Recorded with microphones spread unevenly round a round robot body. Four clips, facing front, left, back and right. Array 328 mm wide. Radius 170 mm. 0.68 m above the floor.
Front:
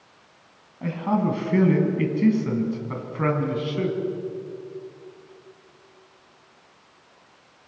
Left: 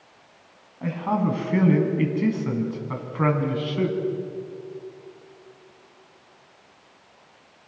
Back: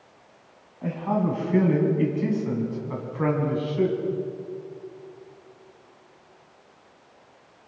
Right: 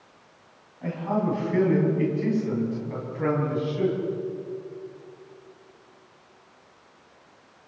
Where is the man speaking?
35° left, 6.5 m; by 4.0 s 55° left, 7 m.